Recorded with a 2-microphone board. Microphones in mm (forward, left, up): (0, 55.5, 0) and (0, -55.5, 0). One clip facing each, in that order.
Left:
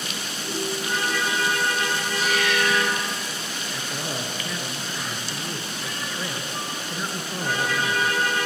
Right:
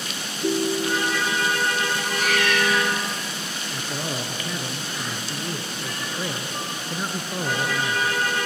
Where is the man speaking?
15° right (ahead or behind), 1.4 m.